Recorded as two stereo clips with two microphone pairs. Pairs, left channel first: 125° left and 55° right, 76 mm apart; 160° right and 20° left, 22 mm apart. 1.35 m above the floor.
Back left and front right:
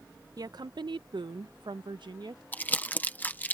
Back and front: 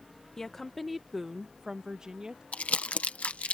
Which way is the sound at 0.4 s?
90° right.